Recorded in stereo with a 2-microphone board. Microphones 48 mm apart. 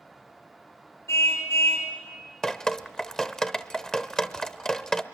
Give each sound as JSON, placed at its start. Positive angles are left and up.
{"t": 1.1, "sound": "a car horn", "side_deg": 80, "distance_m": 5.0}
{"t": 2.4, "sound": "dripping", "side_deg": 15, "distance_m": 0.8}